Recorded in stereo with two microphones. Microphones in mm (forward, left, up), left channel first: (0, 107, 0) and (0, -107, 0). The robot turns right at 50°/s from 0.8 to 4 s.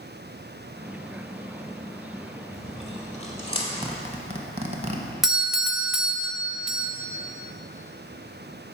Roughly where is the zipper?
Right.